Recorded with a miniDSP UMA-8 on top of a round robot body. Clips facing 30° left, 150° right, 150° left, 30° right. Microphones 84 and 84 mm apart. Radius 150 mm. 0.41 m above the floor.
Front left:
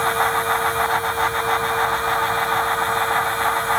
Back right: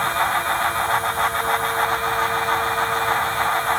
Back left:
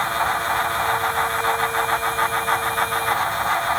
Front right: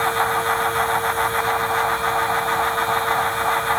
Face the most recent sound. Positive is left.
No sound to turn to.